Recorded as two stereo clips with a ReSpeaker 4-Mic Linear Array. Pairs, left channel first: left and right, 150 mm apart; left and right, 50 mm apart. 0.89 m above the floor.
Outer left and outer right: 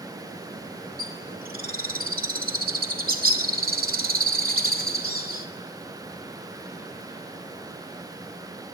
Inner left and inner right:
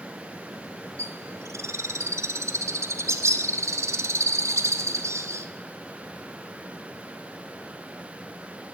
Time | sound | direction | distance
1.0 | a bird | 80° right | 2.5 m